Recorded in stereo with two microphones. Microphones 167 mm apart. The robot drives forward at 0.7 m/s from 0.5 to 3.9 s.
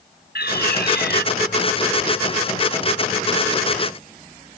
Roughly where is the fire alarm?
Left.